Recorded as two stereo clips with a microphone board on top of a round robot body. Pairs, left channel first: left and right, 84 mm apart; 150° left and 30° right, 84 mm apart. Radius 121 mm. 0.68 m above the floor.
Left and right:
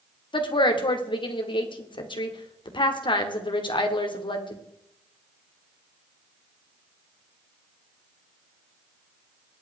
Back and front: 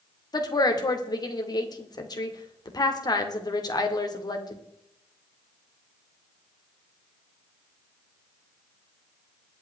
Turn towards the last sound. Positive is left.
turn(degrees=110)